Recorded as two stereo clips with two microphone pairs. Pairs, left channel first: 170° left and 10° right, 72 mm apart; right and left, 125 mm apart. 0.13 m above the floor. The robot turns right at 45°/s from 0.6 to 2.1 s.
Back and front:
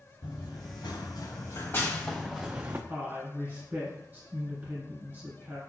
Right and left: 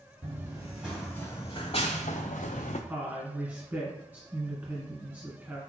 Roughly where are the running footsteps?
Behind.